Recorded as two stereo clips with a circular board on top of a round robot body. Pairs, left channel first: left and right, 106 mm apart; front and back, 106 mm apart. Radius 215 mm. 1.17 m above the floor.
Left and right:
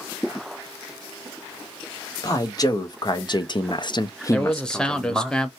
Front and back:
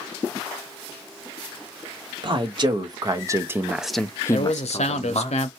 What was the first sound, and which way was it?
A man speaking, 140° left.